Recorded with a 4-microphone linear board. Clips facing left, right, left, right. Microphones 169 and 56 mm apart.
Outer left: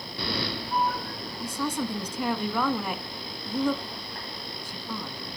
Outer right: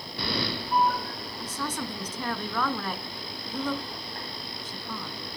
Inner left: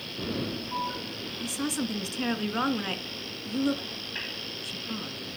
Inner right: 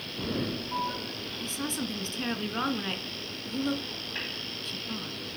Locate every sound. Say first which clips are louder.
1.4 s a woman speaking: outer left 5 dB, inner left 3 dB; 10° left (ahead or behind), 1.2 m